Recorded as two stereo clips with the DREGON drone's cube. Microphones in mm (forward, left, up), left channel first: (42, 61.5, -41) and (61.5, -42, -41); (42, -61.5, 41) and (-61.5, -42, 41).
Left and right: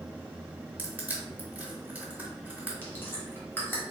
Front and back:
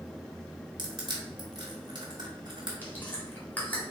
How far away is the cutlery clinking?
I don't hear cutlery clinking.